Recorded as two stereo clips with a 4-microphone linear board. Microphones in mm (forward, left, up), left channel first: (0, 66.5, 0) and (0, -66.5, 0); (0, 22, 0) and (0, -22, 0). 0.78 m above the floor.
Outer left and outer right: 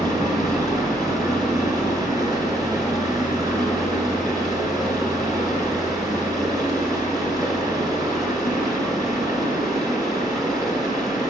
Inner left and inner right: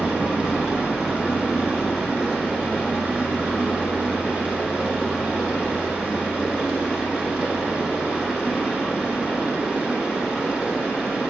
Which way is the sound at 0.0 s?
25° right (ahead or behind).